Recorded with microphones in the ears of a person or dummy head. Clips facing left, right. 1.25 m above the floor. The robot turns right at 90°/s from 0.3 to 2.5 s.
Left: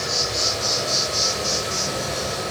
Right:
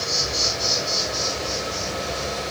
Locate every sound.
0.0 s an insect: 65° right, 2 m; by 2.5 s 135° left, 2 m